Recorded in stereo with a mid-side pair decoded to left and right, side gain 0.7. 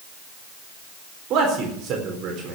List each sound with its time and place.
1.3 s a man speaking: 50° right, 4 m